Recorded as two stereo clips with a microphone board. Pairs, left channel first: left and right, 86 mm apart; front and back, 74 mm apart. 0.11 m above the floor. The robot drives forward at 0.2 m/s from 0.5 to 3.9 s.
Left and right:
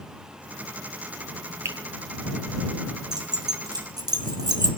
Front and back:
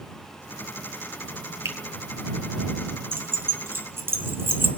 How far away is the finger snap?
About 2.5 m.